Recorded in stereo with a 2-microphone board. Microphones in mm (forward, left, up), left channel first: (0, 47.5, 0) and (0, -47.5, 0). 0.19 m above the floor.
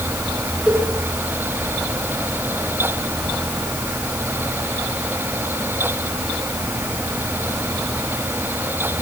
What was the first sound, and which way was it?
A cowbell, 10° right (ahead or behind).